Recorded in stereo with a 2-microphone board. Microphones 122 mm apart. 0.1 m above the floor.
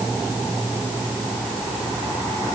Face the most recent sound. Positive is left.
No sound to turn to.